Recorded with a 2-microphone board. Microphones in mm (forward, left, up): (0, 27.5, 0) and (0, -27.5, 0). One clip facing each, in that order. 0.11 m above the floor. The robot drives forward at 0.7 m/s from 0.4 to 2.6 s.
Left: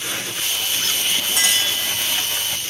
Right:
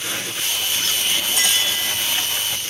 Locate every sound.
1.4 s a clink: 70° left (ahead or behind), 5.5 m; by 1.7 s 65° left (ahead or behind), 5.5 m